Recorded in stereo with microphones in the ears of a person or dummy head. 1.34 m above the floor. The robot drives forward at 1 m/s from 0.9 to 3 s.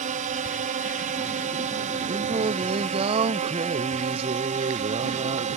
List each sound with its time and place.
0.0 s a drone: 35° right (ahead or behind)
2.1 s singing: 30° right (ahead or behind)